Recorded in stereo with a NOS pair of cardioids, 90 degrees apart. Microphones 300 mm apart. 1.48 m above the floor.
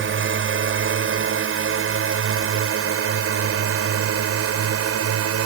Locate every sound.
0.0 s a drone: 45° right; by 5.5 s 55° right